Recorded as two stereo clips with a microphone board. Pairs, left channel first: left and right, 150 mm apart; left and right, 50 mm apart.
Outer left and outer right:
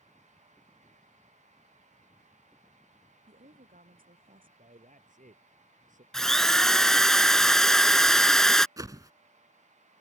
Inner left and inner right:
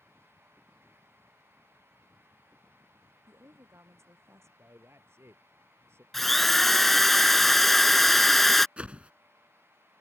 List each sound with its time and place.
3.3 s a woman speaking: 70° right (ahead or behind)
4.6 s a man speaking: 60° right (ahead or behind)
6.1 s a drill: 5° left (ahead or behind)
8.8 s a whoosh: 25° right (ahead or behind)